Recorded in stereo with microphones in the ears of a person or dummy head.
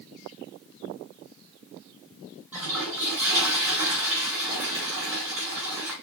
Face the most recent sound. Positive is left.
turn(degrees=-15)  # may be behind; listen again after turning